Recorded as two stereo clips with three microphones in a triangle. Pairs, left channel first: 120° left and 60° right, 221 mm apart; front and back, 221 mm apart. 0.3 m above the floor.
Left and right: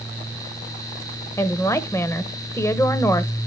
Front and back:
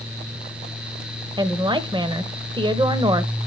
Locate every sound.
1.4 s a woman speaking: 175° left, 0.9 m